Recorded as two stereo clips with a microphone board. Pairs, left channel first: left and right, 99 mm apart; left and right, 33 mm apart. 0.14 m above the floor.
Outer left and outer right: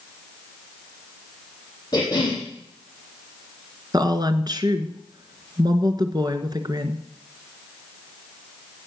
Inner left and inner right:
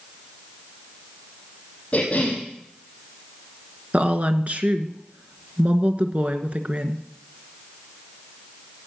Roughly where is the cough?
Left.